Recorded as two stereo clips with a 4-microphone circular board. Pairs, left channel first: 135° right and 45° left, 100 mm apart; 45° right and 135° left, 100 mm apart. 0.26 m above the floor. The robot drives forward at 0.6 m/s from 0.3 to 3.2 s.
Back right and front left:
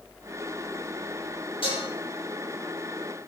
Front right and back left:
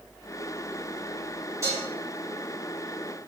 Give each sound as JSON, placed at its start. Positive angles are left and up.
{"t": 1.6, "sound": "dishes clattering", "azimuth_deg": -165, "distance_m": 5.5}